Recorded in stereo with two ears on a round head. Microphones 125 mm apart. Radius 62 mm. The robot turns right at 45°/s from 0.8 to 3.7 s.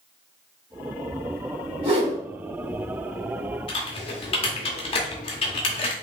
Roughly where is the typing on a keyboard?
Left.